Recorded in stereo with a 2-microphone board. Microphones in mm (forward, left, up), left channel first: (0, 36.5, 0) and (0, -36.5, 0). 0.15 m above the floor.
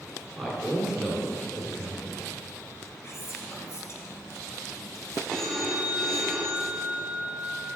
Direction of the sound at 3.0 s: 40° left (ahead or behind).